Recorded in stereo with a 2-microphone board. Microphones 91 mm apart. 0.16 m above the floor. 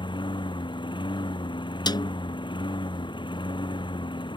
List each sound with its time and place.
0.0 s a lawn mower: 60° left (ahead or behind)
1.9 s a snare drum: 55° left (ahead or behind)